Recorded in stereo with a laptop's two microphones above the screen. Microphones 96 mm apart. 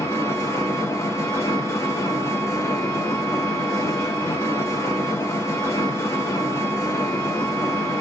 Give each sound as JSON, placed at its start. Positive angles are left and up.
{"t": 0.0, "sound": "an engine running", "side_deg": 30, "distance_m": 1.3}